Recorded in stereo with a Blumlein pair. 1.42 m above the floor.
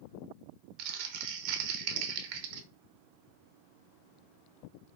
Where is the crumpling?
45° right, 0.5 m.